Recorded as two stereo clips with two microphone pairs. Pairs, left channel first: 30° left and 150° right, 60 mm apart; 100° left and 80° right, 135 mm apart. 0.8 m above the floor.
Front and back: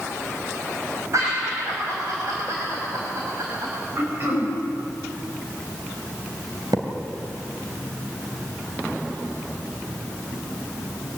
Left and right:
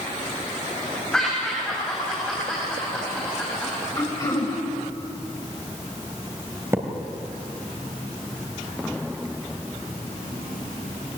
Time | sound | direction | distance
1.1 | laughter | straight behind | 4.5 m
4.0 | throat clearing | 160° left | 5 m
6.7 | a thud | 155° right | 2.5 m